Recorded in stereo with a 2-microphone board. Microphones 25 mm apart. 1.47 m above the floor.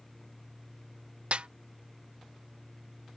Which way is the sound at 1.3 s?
60° right (ahead or behind).